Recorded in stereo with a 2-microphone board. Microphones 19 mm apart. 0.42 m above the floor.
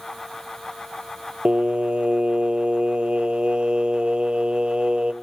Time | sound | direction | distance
1.4 | singing | 55° right (ahead or behind) | 0.9 m